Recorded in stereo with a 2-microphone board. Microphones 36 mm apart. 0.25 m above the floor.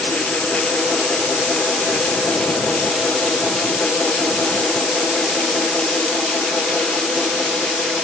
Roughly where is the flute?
I don't hear a flute.